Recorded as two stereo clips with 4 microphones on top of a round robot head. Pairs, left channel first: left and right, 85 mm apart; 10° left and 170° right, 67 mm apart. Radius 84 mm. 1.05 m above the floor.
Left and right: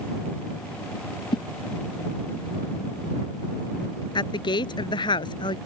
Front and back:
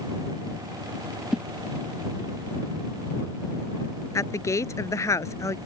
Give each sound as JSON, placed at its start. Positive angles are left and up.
{"t": 1.3, "sound": "a whoosh", "azimuth_deg": 115}
{"t": 4.2, "sound": "a woman speaking", "azimuth_deg": 55}